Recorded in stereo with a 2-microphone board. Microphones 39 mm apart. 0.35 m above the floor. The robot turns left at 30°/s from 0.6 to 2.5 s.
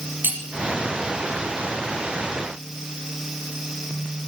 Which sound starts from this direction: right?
Cutlery clinking, at 0.2 s.